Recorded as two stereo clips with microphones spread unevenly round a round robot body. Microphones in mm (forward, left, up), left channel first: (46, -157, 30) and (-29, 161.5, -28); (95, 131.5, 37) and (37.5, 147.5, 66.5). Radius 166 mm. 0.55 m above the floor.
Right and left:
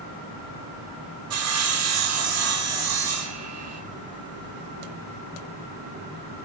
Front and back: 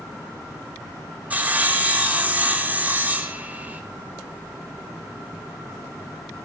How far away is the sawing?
About 1.4 m.